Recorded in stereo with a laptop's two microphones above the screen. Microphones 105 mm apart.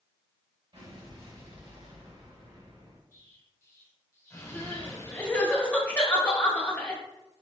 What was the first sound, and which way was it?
An explosion, 60° right (ahead or behind).